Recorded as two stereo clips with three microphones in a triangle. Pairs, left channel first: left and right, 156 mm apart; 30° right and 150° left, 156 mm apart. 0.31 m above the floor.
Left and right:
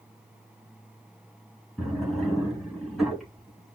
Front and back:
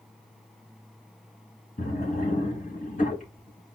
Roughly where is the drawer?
Ahead.